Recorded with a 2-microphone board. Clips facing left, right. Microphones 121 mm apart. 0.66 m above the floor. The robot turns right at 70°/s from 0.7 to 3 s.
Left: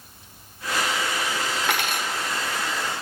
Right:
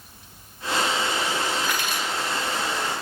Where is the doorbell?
I don't hear a doorbell.